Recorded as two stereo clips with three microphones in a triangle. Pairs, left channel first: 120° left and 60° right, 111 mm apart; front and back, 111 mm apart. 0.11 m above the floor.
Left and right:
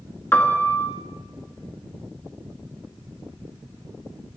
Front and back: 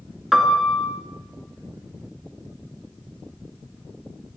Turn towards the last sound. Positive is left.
turn(degrees=95)